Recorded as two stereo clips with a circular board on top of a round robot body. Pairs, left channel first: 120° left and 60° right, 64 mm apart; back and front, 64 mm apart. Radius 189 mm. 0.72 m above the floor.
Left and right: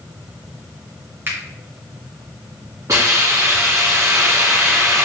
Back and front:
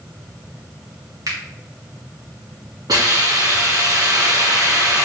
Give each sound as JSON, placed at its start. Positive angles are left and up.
{"t": 1.3, "sound": "a finger snap", "azimuth_deg": -5, "distance_m": 2.5}
{"t": 2.9, "sound": "a hiss", "azimuth_deg": -15, "distance_m": 3.0}